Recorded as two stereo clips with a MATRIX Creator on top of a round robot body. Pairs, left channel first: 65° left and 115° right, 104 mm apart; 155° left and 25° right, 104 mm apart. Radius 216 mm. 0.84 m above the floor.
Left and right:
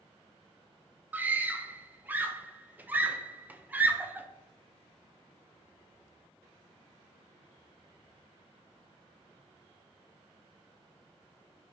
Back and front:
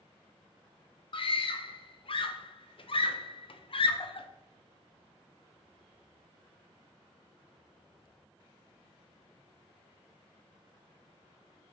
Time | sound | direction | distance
1.1 | a scream | 175° left | 0.5 m